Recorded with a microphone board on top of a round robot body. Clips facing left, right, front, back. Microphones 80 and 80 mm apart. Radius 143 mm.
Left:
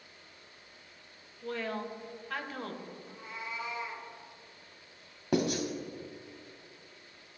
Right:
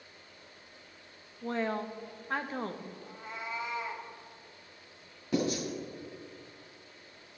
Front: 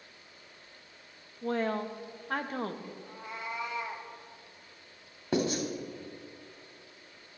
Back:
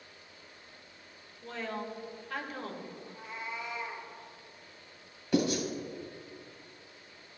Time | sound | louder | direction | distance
1.4 | a woman speaking | right 3 dB, front 7 dB | 35° right | 1.0 m
3.0 | a cat meowing | right 2 dB, front 1 dB | 35° right | 0.9 m
5.3 | writing | left 1 dB, back 1 dB | 55° left | 1.9 m